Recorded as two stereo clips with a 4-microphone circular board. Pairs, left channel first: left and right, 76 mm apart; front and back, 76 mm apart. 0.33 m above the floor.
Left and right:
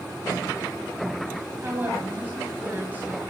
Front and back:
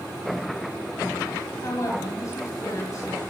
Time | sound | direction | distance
1.6 | a woman speaking | 30° right | 2.5 m